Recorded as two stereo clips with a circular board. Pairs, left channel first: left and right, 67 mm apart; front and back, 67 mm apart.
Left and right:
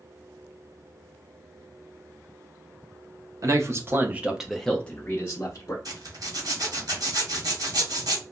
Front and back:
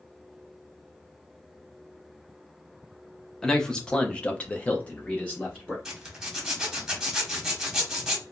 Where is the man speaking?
80° right, 0.7 m; by 5.8 s 70° left, 0.8 m.